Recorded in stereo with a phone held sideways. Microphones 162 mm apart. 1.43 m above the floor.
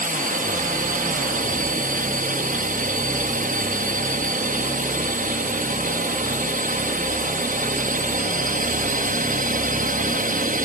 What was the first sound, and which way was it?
A drone, 60° right (ahead or behind).